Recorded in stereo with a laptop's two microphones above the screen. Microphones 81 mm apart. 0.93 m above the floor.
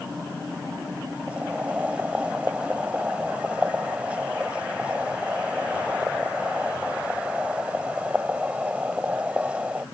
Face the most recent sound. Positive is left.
turn(degrees=-15)  # may be behind; listen again after turning